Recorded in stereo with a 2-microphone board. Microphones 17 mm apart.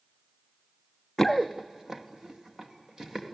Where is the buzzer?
No buzzer in this recording.